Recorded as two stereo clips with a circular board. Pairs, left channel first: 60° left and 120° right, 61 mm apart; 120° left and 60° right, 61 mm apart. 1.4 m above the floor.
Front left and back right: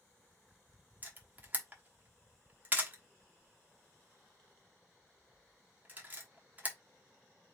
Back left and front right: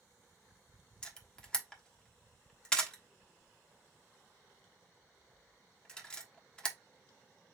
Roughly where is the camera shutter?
Behind.